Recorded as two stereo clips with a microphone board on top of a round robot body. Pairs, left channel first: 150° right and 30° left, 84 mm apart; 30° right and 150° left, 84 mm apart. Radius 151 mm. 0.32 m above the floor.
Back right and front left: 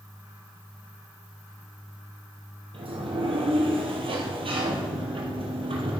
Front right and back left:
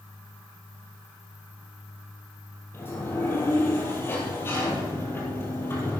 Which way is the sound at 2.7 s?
35° left.